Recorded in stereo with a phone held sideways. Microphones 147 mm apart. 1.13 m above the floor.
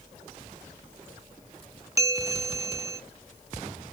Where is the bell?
20° right (ahead or behind), 0.8 m.